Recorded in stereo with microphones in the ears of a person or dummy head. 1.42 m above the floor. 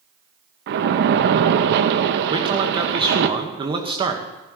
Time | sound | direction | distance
0.7 | a splash | 55° right (ahead or behind) | 0.9 m
2.3 | a man speaking | 30° right (ahead or behind) | 1.8 m